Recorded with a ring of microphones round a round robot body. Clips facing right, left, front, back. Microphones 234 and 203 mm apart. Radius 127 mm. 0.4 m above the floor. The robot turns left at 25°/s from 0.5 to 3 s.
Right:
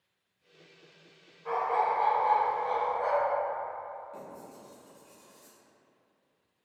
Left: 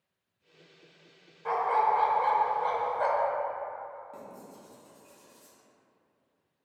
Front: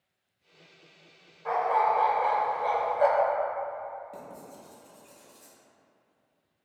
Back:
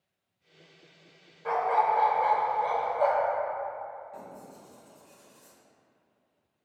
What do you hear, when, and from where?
1.4 s a dog barking: 120° left, 0.5 m; by 3.3 s 80° left, 0.5 m
4.1 s writing: 15° left, 1.0 m